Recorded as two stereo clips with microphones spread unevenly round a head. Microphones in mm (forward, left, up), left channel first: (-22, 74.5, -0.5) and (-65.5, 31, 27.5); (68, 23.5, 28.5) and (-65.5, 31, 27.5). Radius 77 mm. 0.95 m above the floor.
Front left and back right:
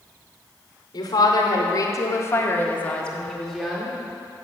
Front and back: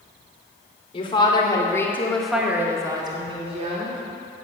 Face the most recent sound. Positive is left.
turn(degrees=140)